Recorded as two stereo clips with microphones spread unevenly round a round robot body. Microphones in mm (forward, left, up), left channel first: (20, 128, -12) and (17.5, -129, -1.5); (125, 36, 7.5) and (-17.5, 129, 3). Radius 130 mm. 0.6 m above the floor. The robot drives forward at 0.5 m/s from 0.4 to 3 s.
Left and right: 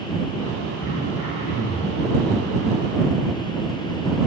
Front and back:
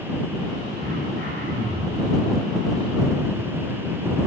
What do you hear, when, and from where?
0.8 s throat clearing: 130° left, 9 m; by 2.1 s 135° left, 9.5 m